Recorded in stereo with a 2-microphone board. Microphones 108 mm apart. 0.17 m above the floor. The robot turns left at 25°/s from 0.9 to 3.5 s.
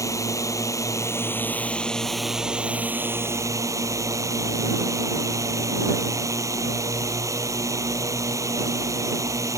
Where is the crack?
No crack in this recording.